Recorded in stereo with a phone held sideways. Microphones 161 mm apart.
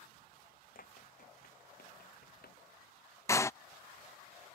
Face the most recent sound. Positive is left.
turn(degrees=20)  # may be behind; listen again after turning